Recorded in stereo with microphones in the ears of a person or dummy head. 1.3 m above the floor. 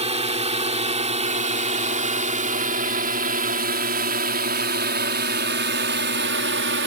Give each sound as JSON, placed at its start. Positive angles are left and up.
{"t": 0.0, "sound": "a drone", "side_deg": -35}